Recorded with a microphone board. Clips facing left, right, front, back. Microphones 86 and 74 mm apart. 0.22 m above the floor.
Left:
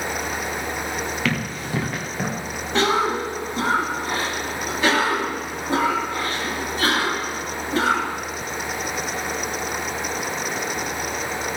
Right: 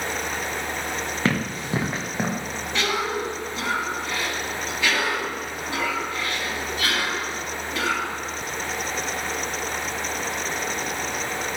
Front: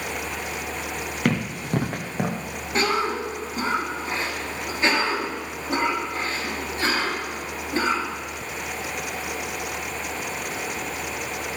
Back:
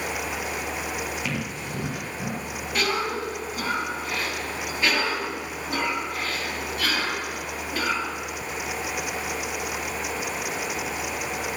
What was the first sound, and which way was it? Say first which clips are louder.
Running footsteps: right 1 dB, front 6 dB; 30° right.